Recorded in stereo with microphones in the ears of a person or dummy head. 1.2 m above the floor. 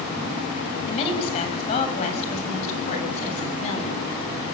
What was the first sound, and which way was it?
A woman speaking, 35° left (ahead or behind).